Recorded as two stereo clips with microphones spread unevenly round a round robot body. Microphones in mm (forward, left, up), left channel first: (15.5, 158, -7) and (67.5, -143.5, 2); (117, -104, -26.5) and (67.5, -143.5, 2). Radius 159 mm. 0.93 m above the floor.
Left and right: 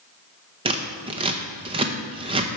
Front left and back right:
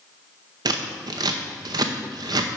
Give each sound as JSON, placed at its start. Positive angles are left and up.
{"t": 0.7, "sound": "scissors", "azimuth_deg": -145, "distance_m": 0.6}